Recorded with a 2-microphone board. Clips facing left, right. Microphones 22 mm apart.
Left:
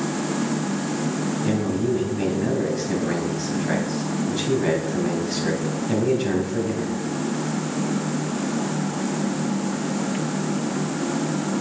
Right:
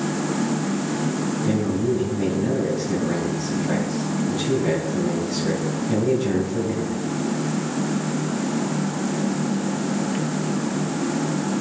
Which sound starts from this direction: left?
A man speaking, at 1.4 s.